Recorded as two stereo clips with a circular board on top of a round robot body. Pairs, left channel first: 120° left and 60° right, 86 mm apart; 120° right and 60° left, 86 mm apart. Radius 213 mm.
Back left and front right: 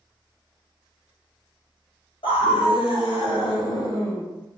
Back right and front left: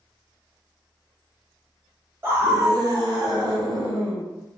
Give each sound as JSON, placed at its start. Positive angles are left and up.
{"t": 2.2, "sound": "a scream", "azimuth_deg": 120, "distance_m": 1.7}